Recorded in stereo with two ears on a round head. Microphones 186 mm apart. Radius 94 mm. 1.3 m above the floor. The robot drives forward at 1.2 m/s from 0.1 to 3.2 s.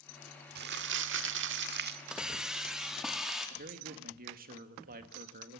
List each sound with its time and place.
0.6 s crumpling: 50° right (ahead or behind), 1.7 m
2.1 s a hiss: 5° right (ahead or behind), 1.8 m; by 3.5 s centre (ahead or behind), 3 m
3.6 s a man speaking: 45° right (ahead or behind), 2 m